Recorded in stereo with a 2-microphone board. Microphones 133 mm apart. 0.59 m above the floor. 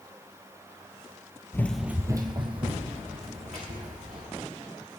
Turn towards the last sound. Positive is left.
turn(degrees=-55)  # may be behind; listen again after turning